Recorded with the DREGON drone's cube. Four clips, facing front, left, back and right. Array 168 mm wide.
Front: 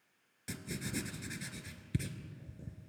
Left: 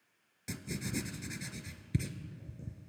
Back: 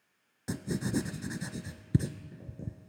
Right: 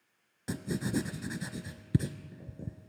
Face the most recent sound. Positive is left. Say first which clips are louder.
# right 7 dB, back 9 dB
turn(degrees=-135)